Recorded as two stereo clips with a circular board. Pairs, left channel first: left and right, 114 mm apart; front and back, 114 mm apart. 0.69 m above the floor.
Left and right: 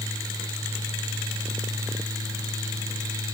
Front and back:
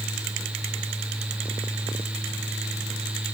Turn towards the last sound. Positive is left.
No sound to turn to.